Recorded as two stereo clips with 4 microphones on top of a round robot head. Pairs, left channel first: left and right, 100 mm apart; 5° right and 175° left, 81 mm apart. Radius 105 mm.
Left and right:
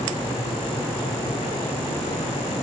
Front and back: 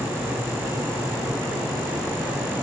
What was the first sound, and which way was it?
Only background noise.